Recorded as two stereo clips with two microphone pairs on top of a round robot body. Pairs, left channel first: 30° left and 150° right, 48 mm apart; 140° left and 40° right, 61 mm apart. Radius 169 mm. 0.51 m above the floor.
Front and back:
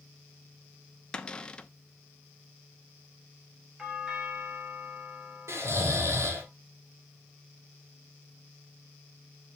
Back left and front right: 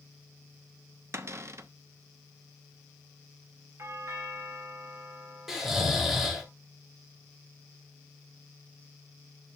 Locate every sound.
1.1 s a cupboard door: 30° right, 1.1 m
3.8 s a doorbell: 75° right, 3 m
5.5 s snoring: 130° right, 3 m